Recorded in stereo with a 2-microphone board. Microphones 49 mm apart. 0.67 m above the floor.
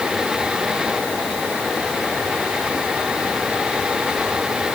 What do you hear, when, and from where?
Only background noise.